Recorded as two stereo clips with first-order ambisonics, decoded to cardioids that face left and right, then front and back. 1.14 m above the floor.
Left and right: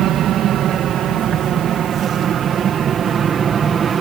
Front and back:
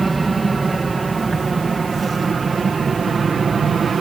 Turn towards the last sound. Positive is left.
turn(degrees=-130)